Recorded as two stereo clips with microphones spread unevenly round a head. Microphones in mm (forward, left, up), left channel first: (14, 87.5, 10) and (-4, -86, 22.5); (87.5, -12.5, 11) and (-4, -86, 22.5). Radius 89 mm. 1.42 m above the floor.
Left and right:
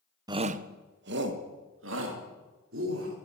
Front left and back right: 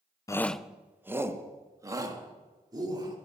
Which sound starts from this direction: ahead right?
A shout, at 0.3 s.